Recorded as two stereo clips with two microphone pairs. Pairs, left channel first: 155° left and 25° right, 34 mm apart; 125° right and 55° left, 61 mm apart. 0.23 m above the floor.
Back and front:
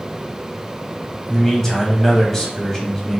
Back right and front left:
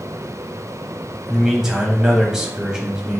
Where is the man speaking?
115° left, 1.0 m.